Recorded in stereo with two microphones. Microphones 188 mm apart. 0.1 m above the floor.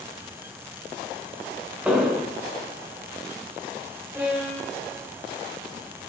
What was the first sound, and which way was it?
An explosion, 5° right (ahead or behind).